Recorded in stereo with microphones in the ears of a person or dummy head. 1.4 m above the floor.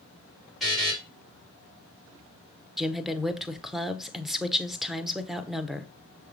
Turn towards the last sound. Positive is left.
turn(degrees=0)  # may be behind; listen again after turning